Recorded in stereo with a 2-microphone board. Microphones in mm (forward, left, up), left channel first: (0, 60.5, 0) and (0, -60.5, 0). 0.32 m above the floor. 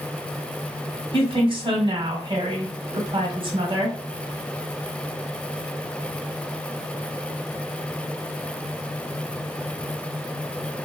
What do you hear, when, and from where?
1.1 s a woman speaking: 45° right (ahead or behind), 1.3 m